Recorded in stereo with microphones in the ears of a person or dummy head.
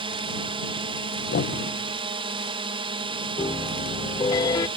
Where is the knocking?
50° left (ahead or behind).